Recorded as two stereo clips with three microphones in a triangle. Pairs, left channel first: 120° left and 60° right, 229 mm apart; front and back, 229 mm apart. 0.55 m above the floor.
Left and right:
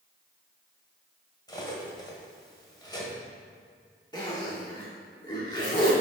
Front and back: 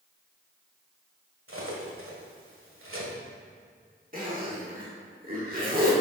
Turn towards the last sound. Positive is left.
turn(degrees=180)